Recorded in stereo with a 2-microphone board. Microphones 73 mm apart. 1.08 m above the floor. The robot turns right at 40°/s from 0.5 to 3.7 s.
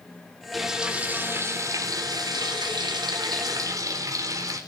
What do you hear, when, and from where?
0.5 s frying: straight behind, 3.5 m; by 4.6 s 50° right, 3.5 m